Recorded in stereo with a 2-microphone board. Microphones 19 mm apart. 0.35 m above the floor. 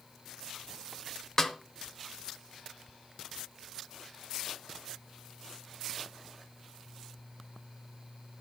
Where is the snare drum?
25° left (ahead or behind), 0.8 m.